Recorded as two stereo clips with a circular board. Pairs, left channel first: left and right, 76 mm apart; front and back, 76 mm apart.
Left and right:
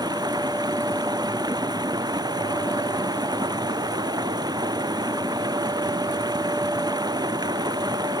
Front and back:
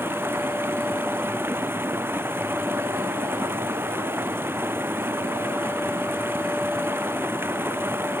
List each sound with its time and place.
0.0 s running water: 120° right